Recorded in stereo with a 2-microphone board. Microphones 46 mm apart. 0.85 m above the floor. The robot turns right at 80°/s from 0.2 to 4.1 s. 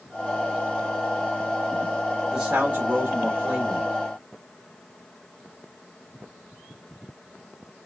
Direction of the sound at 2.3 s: 165° right.